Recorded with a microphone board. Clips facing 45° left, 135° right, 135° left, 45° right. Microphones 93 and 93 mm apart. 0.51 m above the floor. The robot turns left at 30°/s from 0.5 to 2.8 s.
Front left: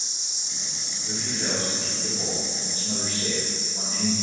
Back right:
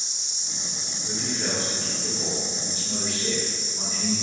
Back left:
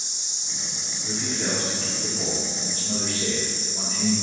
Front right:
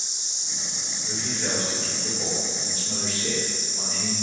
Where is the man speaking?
150° left, 1.0 m; by 4.1 s 100° left, 1.0 m.